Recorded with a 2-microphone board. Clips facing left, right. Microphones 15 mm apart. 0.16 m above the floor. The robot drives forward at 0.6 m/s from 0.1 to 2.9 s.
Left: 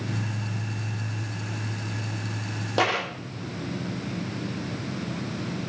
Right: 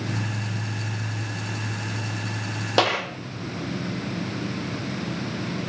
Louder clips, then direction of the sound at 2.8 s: Right 3 dB; 40° right (ahead or behind).